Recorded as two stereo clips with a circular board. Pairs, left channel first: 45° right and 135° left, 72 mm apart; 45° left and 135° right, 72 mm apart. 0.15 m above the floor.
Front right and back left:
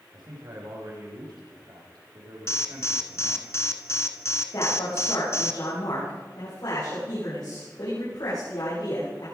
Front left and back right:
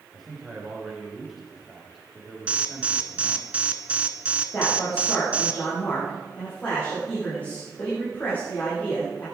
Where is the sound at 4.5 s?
25° right, 7.5 m.